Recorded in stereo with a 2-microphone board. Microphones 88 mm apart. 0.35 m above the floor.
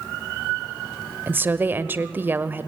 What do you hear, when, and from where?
1.3 s a woman speaking: 25° right (ahead or behind), 1.3 m